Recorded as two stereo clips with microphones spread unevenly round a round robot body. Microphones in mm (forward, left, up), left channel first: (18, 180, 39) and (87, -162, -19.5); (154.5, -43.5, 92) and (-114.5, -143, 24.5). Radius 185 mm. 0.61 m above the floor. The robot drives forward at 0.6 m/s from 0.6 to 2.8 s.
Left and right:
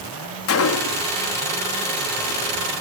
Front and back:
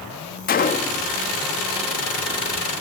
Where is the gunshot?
80° left, 0.7 m; by 1.1 s 125° left, 0.7 m.